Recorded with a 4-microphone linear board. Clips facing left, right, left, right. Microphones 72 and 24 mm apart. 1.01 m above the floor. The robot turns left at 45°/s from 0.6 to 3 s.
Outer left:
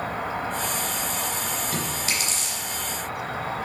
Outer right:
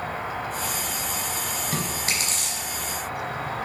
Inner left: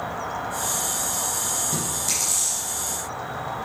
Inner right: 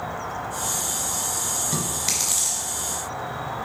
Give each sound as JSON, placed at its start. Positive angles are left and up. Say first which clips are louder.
{"t": 0.0, "sound": "an insect", "louder": "outer left 2 dB, inner left 1 dB", "azimuth_deg": 90, "distance_m": 2.5}
{"t": 1.7, "sound": "chewing", "louder": "even, inner right 1 dB", "side_deg": -20, "distance_m": 3.0}